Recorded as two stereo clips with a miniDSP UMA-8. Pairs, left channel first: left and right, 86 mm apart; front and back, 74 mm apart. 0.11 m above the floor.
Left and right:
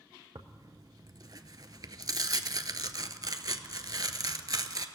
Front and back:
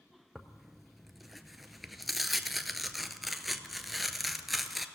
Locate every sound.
0.3 s tearing paper: 90° right, 0.5 m